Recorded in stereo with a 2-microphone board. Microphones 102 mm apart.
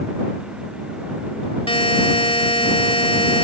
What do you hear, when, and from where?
1.7 s a buzzer: 65° left (ahead or behind)